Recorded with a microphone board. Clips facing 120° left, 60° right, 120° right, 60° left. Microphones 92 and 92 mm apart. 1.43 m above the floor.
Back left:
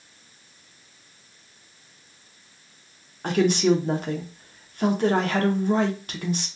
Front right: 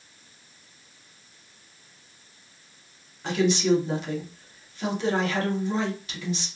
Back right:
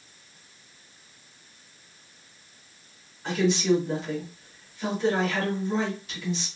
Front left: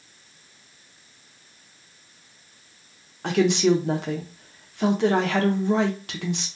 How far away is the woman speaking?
About 0.8 m.